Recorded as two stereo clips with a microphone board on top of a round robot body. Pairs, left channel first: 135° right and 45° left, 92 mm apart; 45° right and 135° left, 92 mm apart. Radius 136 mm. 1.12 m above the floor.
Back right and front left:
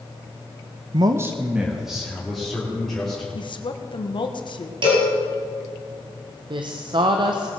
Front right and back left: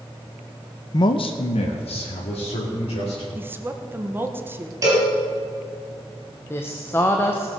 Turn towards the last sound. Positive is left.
turn(degrees=20)